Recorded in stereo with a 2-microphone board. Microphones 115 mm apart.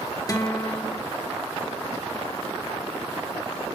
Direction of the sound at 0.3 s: 30° left (ahead or behind).